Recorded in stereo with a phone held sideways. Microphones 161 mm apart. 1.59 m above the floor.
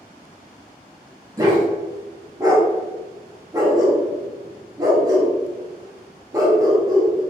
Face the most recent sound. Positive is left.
turn(degrees=-20)  # may be behind; listen again after turning